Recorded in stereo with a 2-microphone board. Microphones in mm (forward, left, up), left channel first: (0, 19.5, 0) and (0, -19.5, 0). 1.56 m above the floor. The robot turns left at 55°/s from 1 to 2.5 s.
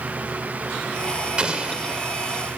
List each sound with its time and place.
1.4 s an explosion: 30° right (ahead or behind), 1.4 m; by 2.1 s 25° right (ahead or behind), 1.4 m